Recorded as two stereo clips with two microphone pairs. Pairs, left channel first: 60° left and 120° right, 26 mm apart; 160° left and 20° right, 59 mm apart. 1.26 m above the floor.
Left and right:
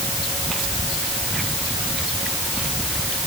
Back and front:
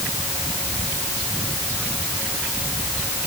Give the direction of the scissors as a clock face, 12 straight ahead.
No scissors in this recording.